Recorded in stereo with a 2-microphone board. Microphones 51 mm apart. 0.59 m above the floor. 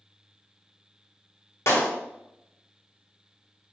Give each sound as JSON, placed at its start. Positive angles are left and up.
{"t": 1.7, "sound": "a clap", "side_deg": 55, "distance_m": 1.1}